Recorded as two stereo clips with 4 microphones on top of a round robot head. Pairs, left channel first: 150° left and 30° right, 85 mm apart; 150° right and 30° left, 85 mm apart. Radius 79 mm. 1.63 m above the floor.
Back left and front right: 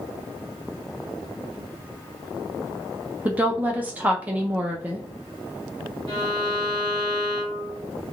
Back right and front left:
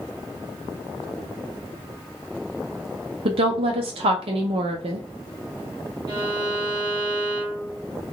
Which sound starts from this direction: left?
A violin, at 6.1 s.